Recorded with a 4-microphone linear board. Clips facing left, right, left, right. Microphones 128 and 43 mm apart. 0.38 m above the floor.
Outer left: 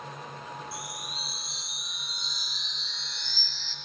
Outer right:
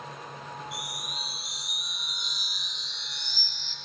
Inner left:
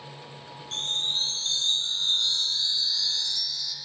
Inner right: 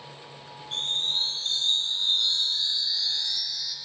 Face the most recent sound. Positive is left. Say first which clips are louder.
# even, inner right 1 dB
turn(degrees=-15)  # may be behind; listen again after turning